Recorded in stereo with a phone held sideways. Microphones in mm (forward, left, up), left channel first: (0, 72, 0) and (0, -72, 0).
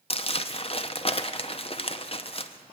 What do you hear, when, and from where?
0.1 s crumpling: 40° left (ahead or behind), 0.6 m